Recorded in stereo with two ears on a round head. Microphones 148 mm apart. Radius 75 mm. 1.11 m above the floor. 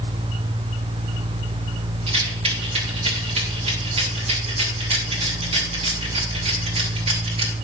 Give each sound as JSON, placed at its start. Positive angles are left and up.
{"t": 2.1, "sound": "a rattle", "side_deg": -35, "distance_m": 2.5}